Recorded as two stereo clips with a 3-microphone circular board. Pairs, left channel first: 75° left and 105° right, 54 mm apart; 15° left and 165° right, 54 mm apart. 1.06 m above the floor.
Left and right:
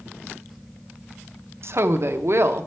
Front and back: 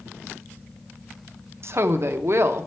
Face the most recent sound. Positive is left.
turn(degrees=-135)